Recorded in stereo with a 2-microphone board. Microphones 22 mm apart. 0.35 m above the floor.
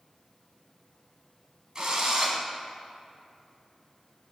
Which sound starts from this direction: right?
A drill, at 1.8 s.